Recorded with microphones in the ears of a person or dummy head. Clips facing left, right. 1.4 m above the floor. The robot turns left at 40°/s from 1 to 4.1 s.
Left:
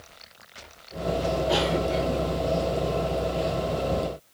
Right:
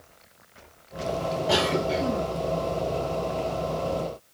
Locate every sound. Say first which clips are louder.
1.5 s a cough: right 3 dB; 75° right (ahead or behind), 1.2 m; by 2.2 s 60° right (ahead or behind), 1.2 m